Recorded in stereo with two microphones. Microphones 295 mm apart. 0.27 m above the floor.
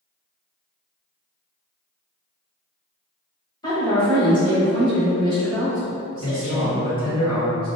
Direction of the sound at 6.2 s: 15° left (ahead or behind).